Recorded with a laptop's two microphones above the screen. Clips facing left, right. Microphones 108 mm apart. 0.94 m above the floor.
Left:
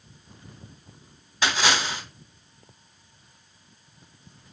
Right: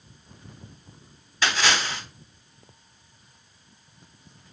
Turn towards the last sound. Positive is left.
turn(degrees=15)  # may be behind; listen again after turning